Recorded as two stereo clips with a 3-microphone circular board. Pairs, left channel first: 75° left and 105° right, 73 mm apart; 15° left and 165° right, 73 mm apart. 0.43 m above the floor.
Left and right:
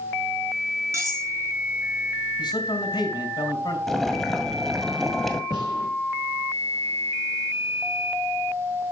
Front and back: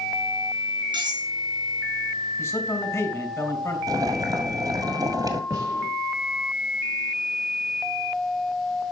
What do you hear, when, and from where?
0.9 s cutlery clinking: 155° right, 5 m
2.4 s a man speaking: 65° left, 3.5 m
3.9 s boiling: 165° left, 1.8 m
5.5 s a gunshot: 120° right, 6 m